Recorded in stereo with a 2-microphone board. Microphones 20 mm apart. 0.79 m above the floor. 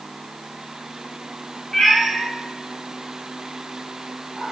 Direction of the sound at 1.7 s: 25° left (ahead or behind).